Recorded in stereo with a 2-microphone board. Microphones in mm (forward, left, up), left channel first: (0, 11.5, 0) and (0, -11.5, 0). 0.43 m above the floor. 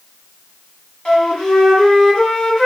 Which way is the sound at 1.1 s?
35° left (ahead or behind).